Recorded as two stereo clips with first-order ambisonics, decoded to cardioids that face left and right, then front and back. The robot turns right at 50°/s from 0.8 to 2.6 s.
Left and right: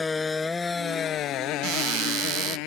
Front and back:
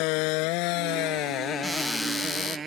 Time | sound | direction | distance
0.0 | a motorcycle | 15° left | ?
1.6 | a cupboard door | 100° right | ?